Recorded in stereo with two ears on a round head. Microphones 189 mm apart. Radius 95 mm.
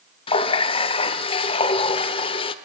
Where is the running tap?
25° left (ahead or behind), 0.8 m.